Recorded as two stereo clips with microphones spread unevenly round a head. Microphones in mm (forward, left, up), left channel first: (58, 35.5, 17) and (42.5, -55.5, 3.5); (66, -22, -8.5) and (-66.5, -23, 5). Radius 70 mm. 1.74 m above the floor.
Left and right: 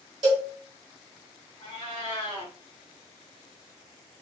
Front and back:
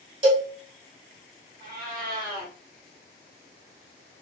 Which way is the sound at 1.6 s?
135° left.